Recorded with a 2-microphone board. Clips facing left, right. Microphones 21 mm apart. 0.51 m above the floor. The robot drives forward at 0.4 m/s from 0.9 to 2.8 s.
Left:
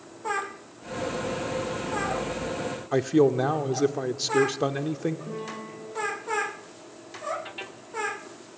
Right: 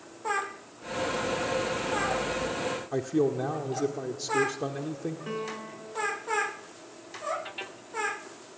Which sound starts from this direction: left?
A man speaking, at 2.9 s.